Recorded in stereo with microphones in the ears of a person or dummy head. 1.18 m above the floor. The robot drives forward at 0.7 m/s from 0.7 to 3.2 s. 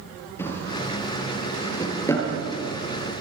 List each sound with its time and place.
0.4 s a drawer: 20° left (ahead or behind), 7 m